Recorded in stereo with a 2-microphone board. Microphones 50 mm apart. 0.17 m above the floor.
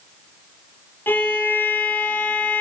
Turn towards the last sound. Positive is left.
turn(degrees=45)  # may be behind; listen again after turning